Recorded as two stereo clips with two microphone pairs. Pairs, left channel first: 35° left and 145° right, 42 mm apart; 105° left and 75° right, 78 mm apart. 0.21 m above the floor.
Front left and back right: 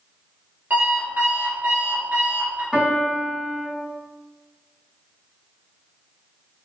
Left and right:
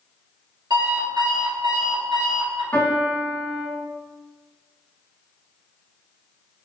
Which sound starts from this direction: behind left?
A piano, at 2.7 s.